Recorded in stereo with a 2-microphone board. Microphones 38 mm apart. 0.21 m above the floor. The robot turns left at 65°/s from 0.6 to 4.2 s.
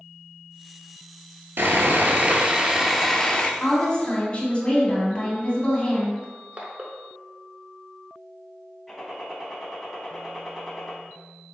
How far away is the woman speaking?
About 1.4 m.